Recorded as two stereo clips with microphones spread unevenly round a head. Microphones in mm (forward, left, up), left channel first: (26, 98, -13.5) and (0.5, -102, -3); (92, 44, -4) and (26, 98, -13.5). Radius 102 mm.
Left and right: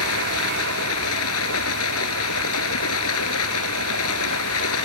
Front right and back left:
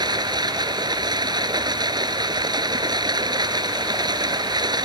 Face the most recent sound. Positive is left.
turn(degrees=105)